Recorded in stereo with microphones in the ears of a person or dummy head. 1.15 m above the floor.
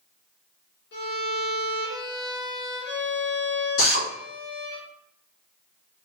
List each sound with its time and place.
0.9 s a violin: 60° left (ahead or behind), 1.2 m
3.8 s a drill: 80° left, 1.8 m